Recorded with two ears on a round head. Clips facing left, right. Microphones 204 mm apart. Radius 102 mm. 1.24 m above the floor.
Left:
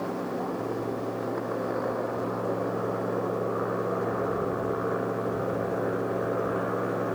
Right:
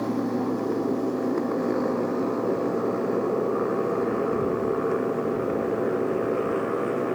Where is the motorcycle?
45° right (ahead or behind); by 7.1 s 40° right (ahead or behind).